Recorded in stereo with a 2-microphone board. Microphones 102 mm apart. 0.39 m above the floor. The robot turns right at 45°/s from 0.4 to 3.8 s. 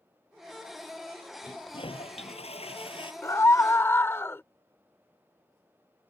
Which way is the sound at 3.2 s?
30° left (ahead or behind).